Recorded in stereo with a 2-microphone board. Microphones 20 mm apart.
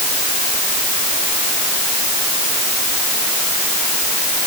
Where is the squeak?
I don't hear a squeak.